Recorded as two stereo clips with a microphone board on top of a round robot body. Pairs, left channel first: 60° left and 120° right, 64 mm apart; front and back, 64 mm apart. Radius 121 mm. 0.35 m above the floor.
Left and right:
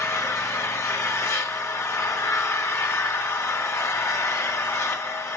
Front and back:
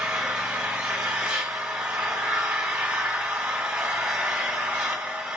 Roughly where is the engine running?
Left.